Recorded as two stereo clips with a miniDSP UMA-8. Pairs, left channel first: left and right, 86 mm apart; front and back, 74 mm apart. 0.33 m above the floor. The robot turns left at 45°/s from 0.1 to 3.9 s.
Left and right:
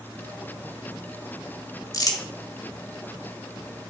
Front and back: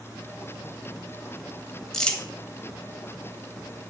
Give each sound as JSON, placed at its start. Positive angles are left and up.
{"t": 1.9, "sound": "crumpling", "azimuth_deg": 80, "distance_m": 1.6}